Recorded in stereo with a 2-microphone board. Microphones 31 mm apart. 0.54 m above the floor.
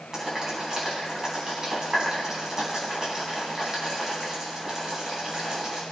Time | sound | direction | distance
0.1 | boiling | 25° right (ahead or behind) | 4.5 m